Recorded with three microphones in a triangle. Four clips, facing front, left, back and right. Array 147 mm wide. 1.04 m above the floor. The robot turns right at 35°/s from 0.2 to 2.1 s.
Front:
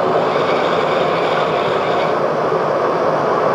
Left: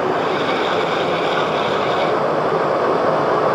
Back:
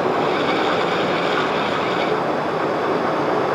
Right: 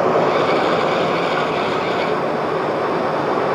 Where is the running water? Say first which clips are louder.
Right 3 dB, front 4 dB; 40° right, 4.5 m; by 3.6 s 30° left, 4.5 m.